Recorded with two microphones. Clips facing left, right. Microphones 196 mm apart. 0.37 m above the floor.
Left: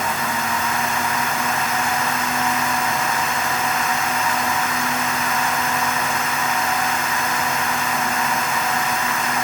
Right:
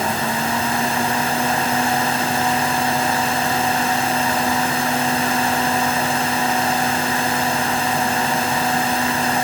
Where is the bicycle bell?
No bicycle bell in this recording.